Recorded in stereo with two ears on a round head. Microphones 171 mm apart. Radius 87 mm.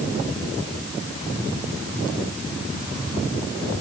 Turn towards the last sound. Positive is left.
No sound to turn to.